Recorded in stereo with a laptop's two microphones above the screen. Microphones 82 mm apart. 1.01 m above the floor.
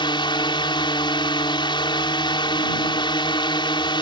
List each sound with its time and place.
0.0 s a drone: 70° left (ahead or behind)